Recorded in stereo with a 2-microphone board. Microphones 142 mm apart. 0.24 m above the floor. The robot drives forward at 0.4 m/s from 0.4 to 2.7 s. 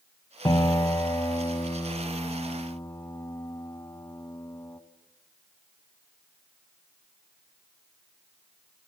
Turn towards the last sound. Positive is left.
turn(degrees=15)  # may be behind; listen again after turning